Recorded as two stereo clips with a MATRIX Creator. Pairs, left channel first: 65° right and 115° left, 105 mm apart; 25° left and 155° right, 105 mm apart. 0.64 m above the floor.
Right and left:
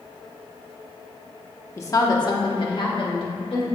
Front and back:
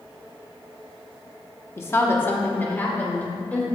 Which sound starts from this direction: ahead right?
A woman speaking, at 1.8 s.